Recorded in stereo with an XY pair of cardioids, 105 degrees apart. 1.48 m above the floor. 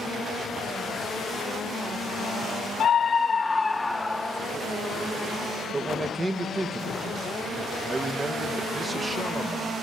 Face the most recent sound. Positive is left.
turn(degrees=-25)